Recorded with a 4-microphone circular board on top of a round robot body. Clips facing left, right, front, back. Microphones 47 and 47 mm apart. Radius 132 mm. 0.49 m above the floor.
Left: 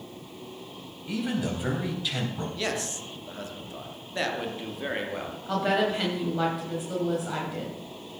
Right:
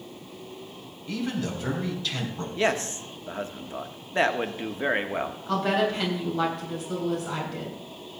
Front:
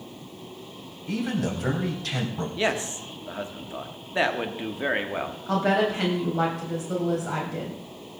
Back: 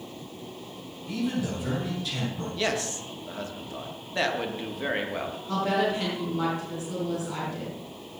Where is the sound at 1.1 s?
15° left, 4 m.